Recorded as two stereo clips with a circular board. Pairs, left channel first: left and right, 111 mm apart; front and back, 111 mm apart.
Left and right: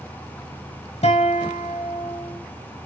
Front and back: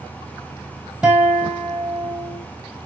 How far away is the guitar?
About 1.9 m.